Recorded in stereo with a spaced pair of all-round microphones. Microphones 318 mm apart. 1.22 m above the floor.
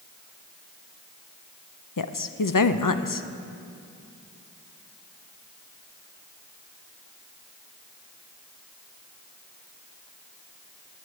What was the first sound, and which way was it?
A woman speaking, 85° left.